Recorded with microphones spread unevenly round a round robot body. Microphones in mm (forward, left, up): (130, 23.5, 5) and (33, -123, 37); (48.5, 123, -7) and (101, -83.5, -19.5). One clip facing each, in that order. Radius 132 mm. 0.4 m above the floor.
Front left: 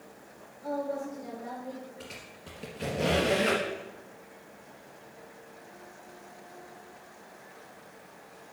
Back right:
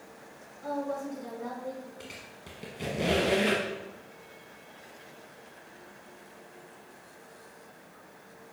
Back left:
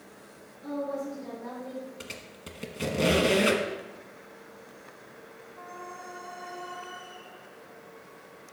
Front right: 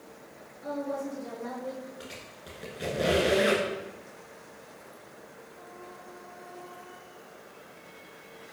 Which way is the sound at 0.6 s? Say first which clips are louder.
Even, back left 1 dB; 120° right.